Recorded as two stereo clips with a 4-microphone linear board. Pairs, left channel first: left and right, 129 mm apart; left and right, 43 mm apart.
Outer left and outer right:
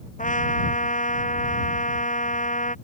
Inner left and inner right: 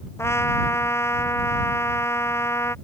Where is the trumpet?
80° left.